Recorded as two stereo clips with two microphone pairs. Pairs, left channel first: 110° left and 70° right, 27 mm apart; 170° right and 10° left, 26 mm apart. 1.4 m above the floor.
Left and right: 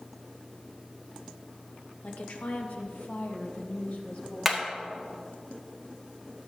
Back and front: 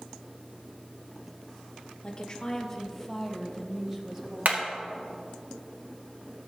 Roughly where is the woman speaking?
Behind left.